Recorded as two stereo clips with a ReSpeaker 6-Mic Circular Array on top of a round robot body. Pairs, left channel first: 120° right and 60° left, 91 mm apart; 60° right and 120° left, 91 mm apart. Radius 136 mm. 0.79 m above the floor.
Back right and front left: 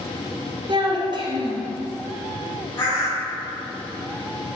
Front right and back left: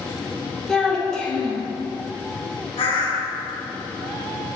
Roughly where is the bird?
Ahead right.